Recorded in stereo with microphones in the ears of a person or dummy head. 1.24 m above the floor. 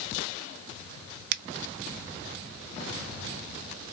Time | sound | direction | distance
1.3 | a finger snap | 55° right (ahead or behind) | 0.5 m